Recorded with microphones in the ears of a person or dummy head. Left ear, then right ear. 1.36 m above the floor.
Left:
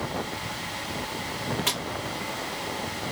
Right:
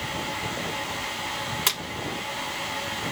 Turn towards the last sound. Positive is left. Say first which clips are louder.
# right 2 dB
turn(degrees=-35)  # may be behind; listen again after turning